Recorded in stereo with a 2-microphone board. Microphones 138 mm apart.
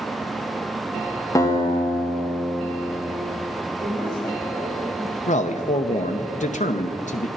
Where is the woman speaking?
60° right (ahead or behind), 5 m.